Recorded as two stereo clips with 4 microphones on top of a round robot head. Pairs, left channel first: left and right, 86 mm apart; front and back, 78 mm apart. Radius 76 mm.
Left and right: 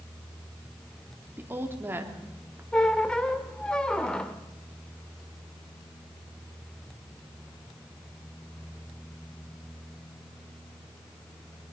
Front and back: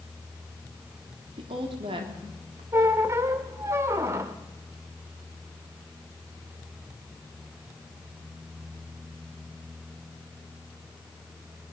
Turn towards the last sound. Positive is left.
turn(degrees=165)